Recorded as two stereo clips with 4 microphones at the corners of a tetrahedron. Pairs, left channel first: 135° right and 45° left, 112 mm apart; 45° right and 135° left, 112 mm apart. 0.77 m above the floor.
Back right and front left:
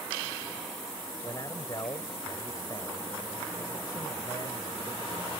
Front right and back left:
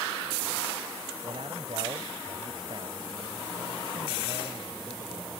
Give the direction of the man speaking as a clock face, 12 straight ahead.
6 o'clock.